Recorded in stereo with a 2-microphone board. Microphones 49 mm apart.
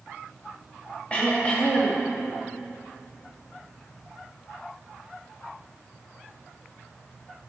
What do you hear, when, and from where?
1.1 s throat clearing: 25° left (ahead or behind), 2.5 m